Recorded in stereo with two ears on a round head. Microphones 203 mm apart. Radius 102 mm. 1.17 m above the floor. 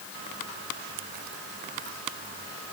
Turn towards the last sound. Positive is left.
No sound to turn to.